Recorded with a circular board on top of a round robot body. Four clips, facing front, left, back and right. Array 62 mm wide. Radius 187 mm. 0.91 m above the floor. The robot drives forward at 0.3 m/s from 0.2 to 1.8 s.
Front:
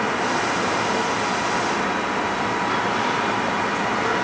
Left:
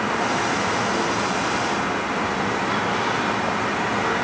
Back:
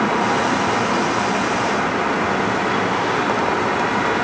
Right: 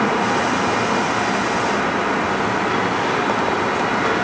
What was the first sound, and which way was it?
Only background noise.